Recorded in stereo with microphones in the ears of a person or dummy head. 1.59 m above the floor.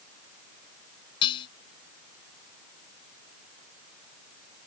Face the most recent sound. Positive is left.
turn(degrees=30)  # may be behind; listen again after turning